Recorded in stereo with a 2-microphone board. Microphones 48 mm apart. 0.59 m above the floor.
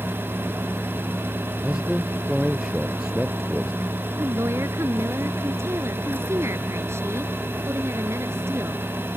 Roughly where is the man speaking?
Centre.